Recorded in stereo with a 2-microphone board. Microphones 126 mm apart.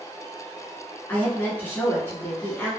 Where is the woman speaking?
15° left (ahead or behind), 1.2 m.